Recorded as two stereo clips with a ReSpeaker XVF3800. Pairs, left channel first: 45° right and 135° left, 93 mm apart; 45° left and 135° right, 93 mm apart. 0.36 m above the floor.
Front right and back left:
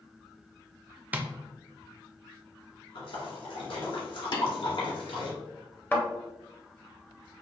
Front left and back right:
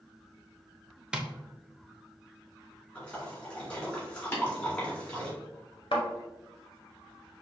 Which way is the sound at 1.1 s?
160° left.